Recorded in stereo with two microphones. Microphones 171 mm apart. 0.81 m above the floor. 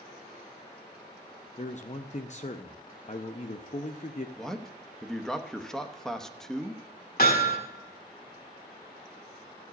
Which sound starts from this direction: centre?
A man speaking, at 4.4 s.